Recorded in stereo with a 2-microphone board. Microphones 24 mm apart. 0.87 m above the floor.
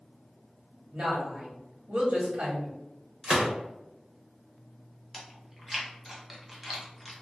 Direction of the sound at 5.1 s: 5° right (ahead or behind).